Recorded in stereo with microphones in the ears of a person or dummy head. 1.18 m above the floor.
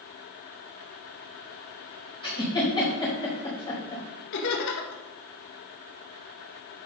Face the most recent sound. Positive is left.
turn(degrees=60)  # may be behind; listen again after turning